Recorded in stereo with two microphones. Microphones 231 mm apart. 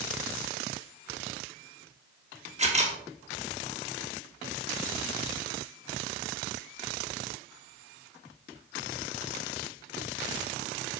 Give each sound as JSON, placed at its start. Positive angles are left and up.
{"t": 2.6, "sound": "a camera shutter", "side_deg": -30, "distance_m": 1.2}